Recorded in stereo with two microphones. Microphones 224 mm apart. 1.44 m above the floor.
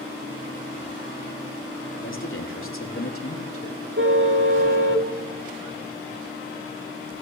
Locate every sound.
2.0 s a man speaking: 60° left (ahead or behind), 4 m; by 3.8 s 85° left, 3 m
4.0 s a car horn: 60° right (ahead or behind), 2.5 m